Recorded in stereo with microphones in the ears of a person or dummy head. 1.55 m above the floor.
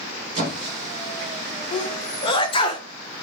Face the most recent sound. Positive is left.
turn(degrees=30)  # may be behind; listen again after turning